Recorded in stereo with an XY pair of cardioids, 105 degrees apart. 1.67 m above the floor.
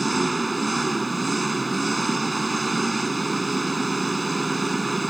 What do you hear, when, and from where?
0.0 s an engine running: 15° right